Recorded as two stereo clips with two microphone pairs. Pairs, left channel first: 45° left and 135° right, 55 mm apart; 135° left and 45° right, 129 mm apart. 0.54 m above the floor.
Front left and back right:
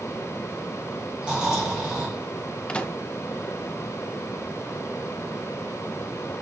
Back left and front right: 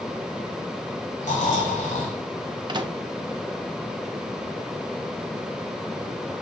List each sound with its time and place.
1.2 s snoring: 150° left, 3.5 m
2.7 s a microwave: 15° right, 0.6 m